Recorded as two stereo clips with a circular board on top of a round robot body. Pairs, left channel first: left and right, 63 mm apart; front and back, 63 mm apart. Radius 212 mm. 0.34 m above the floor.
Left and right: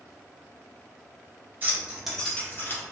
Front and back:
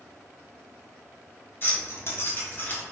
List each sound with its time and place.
1.6 s keys jangling: 45° right, 1.2 m; by 2.8 s 55° left, 1.3 m